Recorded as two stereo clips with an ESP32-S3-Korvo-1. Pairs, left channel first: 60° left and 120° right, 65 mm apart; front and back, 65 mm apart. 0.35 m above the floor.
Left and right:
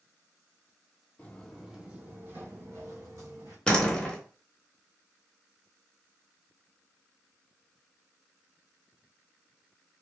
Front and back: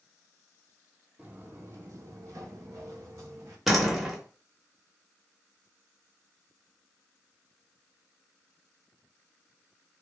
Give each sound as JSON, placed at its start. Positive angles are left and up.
{"t": 1.2, "sound": "footsteps", "azimuth_deg": 120, "distance_m": 0.5}
{"t": 3.7, "sound": "a door slam", "azimuth_deg": 100, "distance_m": 0.6}